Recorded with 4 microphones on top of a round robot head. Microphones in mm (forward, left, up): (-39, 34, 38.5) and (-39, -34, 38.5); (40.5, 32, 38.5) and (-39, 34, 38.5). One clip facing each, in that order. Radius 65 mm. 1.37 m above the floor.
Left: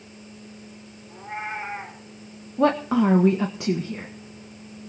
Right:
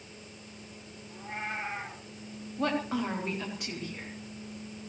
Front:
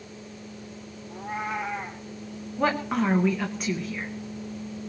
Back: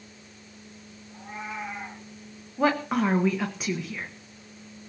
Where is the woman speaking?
90° left, 1.6 m.